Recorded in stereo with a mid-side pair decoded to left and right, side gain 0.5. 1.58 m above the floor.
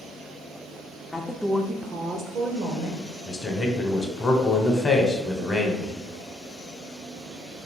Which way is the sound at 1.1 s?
25° left.